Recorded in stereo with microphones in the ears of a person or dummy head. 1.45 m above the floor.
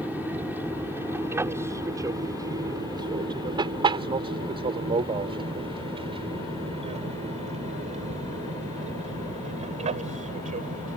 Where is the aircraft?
10° right (ahead or behind); by 11.0 s 35° right (ahead or behind).